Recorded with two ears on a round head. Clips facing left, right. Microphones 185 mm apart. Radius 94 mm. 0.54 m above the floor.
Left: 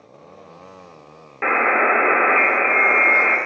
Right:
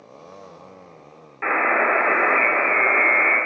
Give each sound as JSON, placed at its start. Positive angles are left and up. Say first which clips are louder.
{"t": 1.4, "sound": "a buzzer", "louder": "left 2 dB", "side_deg": 55, "distance_m": 0.9}